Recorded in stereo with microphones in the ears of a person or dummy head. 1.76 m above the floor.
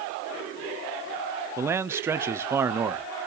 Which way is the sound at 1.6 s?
15° right (ahead or behind).